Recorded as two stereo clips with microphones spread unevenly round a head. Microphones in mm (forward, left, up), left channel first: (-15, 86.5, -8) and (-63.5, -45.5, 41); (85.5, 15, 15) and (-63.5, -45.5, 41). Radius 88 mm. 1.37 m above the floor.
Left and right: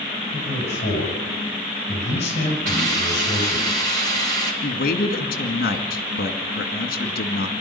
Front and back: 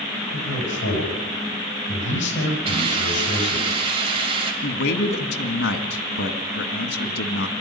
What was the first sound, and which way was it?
A man speaking, 15° left.